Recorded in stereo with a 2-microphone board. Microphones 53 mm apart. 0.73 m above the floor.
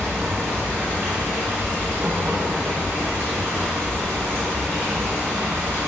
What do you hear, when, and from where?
0.0 s running water: 50° right (ahead or behind), 0.9 m